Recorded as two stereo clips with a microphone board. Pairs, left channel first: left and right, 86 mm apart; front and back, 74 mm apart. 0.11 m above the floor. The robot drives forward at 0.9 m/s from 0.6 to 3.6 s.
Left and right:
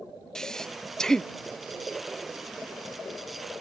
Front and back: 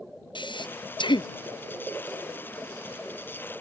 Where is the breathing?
5° left.